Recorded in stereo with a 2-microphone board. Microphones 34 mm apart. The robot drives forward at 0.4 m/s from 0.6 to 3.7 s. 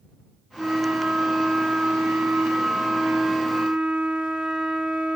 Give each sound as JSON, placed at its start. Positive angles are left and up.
{"t": 0.6, "sound": "a flute", "side_deg": -30, "distance_m": 1.0}